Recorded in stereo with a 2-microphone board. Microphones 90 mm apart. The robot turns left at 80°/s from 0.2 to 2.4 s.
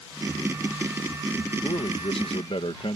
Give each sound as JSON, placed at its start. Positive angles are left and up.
{"t": 1.6, "sound": "a man speaking", "azimuth_deg": 135}